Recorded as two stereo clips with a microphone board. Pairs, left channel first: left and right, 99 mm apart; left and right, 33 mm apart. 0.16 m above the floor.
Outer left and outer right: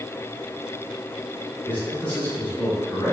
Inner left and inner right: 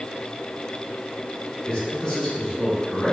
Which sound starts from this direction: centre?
A man speaking, at 1.7 s.